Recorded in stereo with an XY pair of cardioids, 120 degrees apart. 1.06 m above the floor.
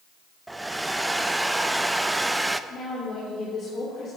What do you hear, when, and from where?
0.5 s a hair dryer: 10° right, 0.5 m
2.7 s a woman speaking: 40° left, 3 m